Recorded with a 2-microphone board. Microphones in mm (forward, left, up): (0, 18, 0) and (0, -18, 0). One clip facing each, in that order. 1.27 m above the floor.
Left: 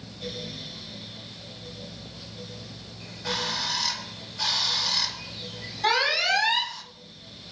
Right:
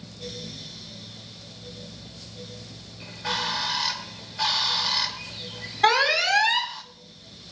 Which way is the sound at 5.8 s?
75° right (ahead or behind).